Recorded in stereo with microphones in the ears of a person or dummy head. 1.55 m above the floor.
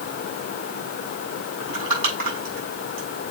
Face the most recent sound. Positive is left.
turn(degrees=-55)  # may be behind; listen again after turning